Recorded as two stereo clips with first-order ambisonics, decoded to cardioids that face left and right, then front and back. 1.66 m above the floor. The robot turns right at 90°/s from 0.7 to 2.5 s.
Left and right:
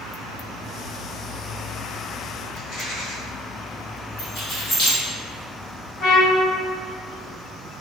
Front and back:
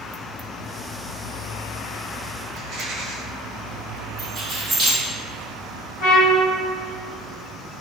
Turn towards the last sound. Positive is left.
turn(degrees=35)